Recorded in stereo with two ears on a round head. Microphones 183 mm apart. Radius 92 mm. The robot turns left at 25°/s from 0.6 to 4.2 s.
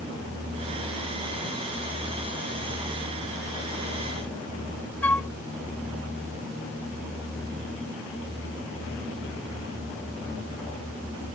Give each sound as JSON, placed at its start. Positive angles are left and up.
{"t": 5.0, "sound": "a flute", "side_deg": 10}